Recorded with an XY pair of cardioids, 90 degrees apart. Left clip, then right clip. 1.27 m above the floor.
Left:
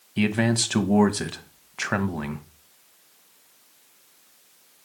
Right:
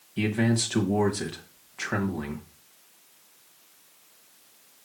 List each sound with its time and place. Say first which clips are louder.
0.2 s a man speaking: left 3 dB; 55° left, 1.0 m